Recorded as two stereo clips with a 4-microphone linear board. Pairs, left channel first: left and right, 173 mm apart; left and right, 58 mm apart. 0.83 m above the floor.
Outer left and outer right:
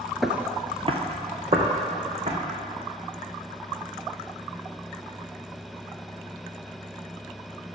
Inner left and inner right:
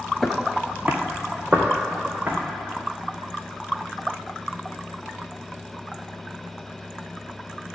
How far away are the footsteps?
About 0.8 m.